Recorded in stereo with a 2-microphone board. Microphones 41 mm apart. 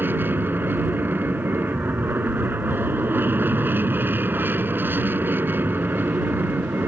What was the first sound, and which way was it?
An aircraft, 55° right (ahead or behind).